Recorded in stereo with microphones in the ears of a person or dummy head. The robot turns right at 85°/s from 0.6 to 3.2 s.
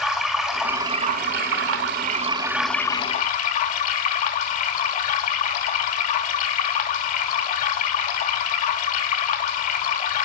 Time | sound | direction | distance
0.0 | running water | 175° right | 1.7 m